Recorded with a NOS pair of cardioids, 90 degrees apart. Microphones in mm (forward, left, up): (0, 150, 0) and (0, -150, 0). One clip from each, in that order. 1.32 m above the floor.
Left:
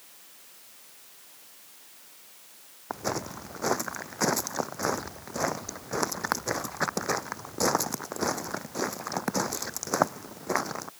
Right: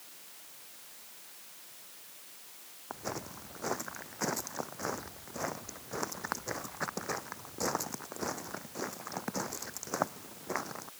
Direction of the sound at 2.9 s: 55° left.